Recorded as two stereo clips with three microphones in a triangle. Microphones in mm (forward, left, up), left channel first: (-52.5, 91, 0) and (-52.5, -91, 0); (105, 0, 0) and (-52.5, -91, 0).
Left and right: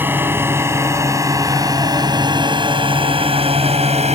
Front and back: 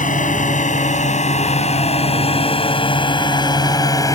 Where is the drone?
10° right; by 4.2 s 40° right.